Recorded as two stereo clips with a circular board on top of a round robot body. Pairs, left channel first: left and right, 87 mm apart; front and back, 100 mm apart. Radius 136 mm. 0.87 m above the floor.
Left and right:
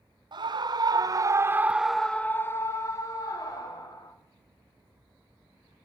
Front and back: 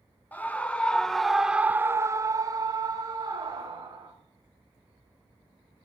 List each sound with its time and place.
0.3 s a scream: 75° right, 1.2 m; by 4.1 s 125° left, 1.7 m